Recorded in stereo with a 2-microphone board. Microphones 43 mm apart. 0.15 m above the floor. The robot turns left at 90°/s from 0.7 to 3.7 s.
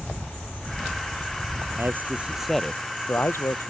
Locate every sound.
1.8 s a man speaking: 115° right; by 3.7 s 70° left